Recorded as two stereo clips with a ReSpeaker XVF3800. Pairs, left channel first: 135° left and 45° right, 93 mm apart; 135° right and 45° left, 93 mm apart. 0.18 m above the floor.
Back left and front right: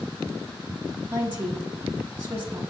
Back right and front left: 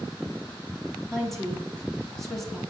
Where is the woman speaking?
50° right, 1.1 m.